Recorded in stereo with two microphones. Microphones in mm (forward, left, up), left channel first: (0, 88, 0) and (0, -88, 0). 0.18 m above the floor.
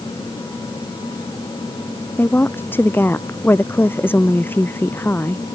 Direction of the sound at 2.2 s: 10° left (ahead or behind).